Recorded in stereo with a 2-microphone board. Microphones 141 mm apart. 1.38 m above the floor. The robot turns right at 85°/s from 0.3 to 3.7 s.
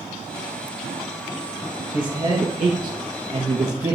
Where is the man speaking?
170° right, 1.8 m; by 3.9 s 20° right, 1.8 m.